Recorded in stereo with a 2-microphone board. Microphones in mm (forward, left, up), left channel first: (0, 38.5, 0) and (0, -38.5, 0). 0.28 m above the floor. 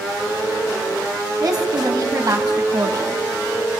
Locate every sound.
1.4 s a woman speaking: 55° right (ahead or behind), 2.5 m